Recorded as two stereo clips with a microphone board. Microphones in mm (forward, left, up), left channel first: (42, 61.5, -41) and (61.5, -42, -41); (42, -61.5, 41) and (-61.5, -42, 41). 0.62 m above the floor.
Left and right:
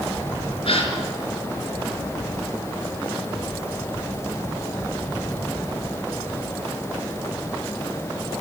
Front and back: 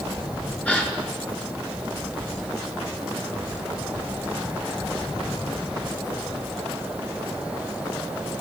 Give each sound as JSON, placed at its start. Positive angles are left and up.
{"t": 0.7, "sound": "a gasp", "azimuth_deg": 65, "distance_m": 4.5}